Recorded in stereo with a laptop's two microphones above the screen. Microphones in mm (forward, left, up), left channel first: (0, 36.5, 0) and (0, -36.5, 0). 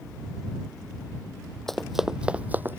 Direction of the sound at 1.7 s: 5° left (ahead or behind).